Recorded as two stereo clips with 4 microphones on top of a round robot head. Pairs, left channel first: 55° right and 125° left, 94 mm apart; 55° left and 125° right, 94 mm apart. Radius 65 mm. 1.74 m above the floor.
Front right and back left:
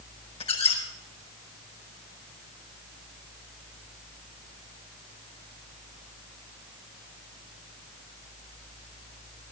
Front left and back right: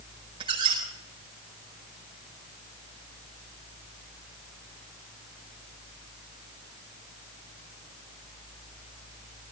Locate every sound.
0.4 s a squeak: 85° right, 5 m